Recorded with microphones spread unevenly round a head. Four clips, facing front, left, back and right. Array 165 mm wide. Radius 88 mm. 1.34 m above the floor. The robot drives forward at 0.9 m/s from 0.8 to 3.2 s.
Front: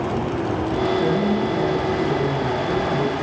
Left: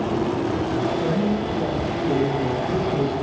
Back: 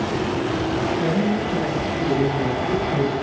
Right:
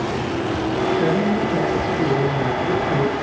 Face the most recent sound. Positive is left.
turn(degrees=-95)